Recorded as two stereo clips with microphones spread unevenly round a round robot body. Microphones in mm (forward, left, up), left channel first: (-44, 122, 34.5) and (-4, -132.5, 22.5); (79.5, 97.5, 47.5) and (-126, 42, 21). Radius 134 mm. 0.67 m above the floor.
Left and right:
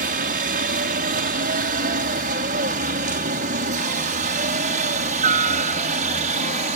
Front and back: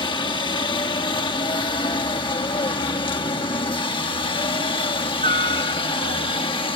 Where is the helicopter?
50° right; by 6.8 s 45° right.